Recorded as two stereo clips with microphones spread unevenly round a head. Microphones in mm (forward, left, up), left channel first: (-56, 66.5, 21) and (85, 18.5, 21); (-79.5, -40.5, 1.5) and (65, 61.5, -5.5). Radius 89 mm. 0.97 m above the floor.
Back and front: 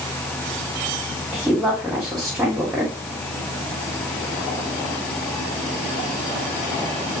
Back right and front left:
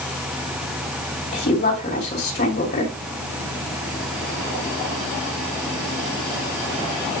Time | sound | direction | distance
1.3 | a woman speaking | 105° right | 2.5 m